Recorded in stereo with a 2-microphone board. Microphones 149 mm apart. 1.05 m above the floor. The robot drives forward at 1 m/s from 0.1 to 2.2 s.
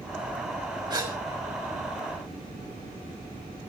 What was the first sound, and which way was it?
A gasp, 30° right (ahead or behind).